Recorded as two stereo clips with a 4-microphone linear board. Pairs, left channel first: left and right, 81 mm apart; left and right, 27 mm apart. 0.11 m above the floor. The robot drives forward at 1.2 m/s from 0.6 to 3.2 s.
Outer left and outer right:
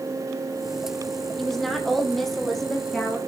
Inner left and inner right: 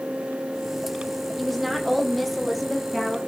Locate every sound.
1.4 s a woman speaking: 5° left (ahead or behind), 3 m; by 3.2 s centre (ahead or behind), 5 m